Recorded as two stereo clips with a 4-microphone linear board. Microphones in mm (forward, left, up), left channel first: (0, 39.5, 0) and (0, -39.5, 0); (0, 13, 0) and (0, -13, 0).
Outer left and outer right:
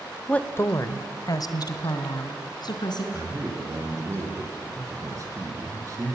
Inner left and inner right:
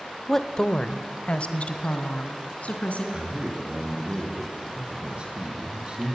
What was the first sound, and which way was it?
A woman speaking, 15° left (ahead or behind).